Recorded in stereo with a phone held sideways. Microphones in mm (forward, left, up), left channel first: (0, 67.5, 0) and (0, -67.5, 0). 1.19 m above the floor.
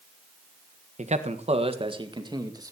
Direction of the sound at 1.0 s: 60° right (ahead or behind).